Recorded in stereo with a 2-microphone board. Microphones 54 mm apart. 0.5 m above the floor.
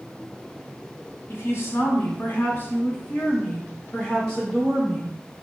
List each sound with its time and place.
1.3 s a woman speaking: 50° left (ahead or behind), 1.5 m; by 5.2 s 10° right (ahead or behind), 1.7 m